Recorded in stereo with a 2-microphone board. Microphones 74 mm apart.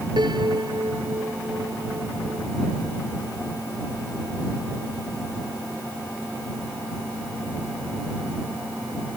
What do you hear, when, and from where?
0.2 s a piano: 85° right